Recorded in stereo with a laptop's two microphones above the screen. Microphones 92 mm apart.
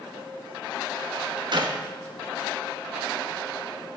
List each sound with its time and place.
1.5 s a clap: 55° right (ahead or behind), 1.2 m